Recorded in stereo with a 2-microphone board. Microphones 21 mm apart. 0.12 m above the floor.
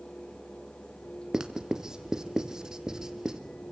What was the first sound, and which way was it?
Writing, 30° right (ahead or behind).